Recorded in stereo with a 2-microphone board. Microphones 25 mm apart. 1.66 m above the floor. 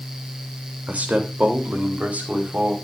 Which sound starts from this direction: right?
A man speaking, at 0.9 s.